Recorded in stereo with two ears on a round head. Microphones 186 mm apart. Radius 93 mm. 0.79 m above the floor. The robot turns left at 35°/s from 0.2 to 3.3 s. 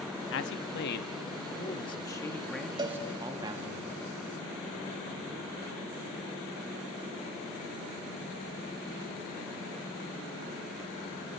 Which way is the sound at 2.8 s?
25° right (ahead or behind).